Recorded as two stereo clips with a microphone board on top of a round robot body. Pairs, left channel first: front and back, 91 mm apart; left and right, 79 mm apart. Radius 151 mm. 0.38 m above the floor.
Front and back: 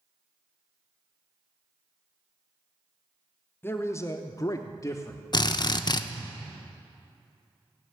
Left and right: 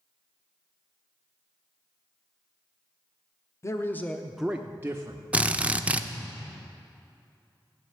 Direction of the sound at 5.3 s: 20° right.